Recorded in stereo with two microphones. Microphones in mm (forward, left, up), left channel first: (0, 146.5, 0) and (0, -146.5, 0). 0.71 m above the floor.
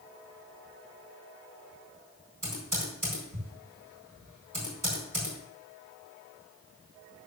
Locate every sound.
2.4 s typing on a keyboard: 85° right, 5 m